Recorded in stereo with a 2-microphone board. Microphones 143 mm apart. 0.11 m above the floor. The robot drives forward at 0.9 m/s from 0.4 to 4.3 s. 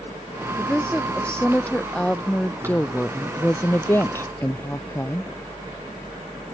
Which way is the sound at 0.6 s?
5° left (ahead or behind).